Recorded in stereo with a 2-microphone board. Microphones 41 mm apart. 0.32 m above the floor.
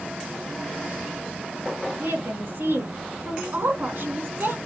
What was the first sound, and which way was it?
A woman speaking, 70° right (ahead or behind).